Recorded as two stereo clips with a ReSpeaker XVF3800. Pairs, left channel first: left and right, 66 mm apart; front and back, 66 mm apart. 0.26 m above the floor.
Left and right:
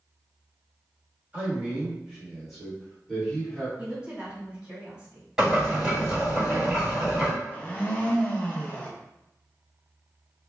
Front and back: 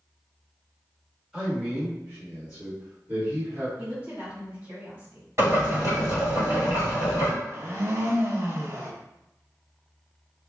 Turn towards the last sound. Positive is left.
turn(degrees=150)